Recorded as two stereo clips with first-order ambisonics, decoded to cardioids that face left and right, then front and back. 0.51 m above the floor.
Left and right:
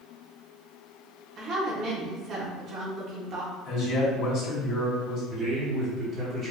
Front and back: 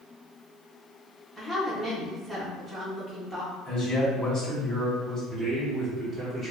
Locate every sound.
1.4 s a woman speaking: 85° right, 1.0 m
3.6 s a man speaking: 65° left, 1.9 m
5.3 s a man speaking: 110° right, 1.5 m